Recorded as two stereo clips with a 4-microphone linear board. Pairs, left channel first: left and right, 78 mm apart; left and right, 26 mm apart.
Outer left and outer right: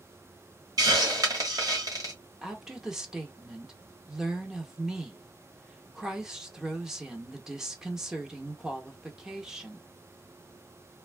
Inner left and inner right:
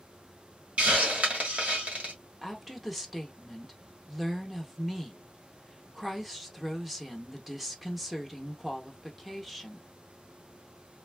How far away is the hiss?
About 1.4 m.